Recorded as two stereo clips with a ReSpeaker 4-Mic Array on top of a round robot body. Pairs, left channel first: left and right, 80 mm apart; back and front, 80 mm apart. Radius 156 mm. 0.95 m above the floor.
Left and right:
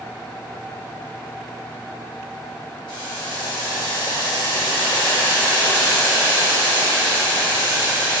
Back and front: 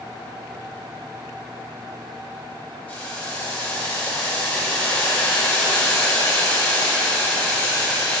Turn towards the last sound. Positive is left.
turn(degrees=105)